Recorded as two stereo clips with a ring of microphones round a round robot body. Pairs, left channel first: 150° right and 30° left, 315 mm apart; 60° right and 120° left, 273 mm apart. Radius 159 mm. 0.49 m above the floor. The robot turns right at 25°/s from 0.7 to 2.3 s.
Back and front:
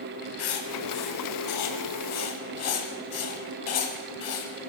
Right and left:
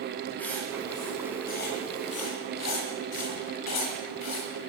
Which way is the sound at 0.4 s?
145° right.